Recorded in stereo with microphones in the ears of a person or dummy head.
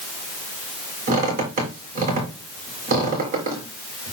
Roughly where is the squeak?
Right.